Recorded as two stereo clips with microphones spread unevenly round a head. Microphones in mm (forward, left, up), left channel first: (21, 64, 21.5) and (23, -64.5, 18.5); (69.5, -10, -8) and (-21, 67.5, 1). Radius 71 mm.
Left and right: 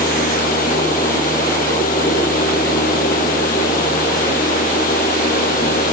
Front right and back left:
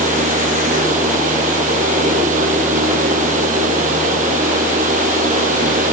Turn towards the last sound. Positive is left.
turn(degrees=125)